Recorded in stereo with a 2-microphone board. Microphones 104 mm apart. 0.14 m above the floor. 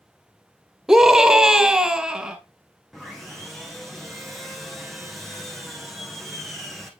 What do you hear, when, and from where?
0.9 s a scream: 5° right (ahead or behind), 1.2 m
2.9 s sawing: centre (ahead or behind), 1.4 m